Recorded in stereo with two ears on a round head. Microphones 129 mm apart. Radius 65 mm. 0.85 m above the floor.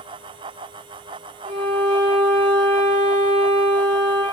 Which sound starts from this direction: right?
A violin, at 1.4 s.